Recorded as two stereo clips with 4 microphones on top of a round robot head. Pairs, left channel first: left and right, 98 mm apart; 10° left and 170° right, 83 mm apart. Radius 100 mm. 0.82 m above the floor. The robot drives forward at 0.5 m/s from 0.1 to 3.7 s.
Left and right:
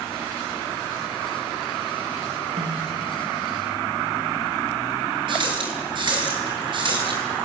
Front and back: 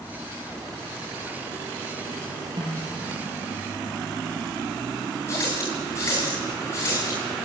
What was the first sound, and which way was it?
A snare drum, 120° right.